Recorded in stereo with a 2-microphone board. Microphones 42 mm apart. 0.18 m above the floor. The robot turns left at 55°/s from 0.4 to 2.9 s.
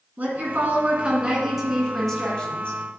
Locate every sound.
0.2 s a woman speaking: 110° right, 1.9 m; by 2.8 s 120° left, 1.9 m